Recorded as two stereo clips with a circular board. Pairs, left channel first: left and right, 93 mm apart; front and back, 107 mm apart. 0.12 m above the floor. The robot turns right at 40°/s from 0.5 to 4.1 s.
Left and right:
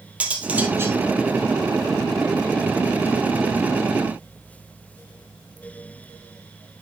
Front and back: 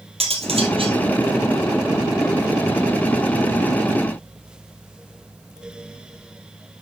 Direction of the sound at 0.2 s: 165° right.